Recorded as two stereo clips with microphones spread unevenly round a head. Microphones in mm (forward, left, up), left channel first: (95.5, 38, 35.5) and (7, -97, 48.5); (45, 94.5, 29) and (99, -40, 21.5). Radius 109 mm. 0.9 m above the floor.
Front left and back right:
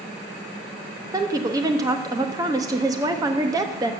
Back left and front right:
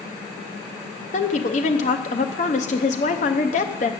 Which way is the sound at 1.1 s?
165° left.